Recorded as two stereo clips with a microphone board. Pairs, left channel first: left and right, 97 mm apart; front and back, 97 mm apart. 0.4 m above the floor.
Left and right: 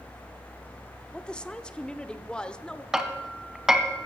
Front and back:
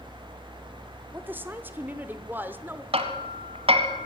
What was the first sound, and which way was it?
A woman speaking, 150° left.